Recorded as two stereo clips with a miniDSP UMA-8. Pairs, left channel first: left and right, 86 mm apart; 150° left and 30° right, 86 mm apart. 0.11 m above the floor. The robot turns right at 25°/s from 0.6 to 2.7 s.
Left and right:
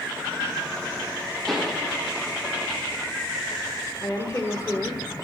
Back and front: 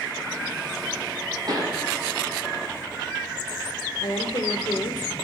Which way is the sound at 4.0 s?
140° left.